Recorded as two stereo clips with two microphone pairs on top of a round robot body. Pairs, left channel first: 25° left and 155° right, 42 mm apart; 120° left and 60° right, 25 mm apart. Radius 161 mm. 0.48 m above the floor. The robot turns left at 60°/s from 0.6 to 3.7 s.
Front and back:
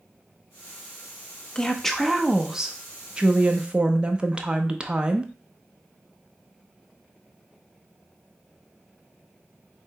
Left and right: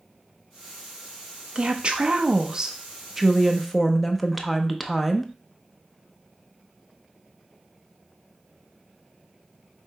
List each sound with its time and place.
1.6 s a woman speaking: 40° right, 0.8 m; by 5.3 s 170° right, 0.8 m